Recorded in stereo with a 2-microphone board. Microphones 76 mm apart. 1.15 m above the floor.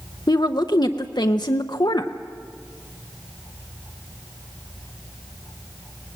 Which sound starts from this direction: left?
A woman speaking, at 0.3 s.